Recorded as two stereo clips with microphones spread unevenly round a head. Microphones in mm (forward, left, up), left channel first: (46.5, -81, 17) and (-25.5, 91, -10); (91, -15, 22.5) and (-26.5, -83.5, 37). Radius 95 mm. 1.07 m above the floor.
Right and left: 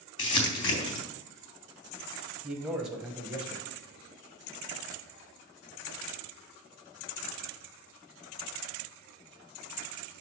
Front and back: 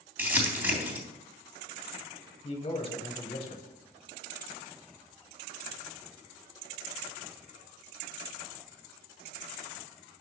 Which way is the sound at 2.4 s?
35° left.